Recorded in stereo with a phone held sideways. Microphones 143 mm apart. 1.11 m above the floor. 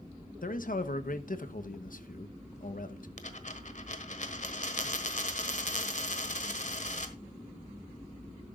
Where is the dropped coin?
60° left (ahead or behind), 1.4 m.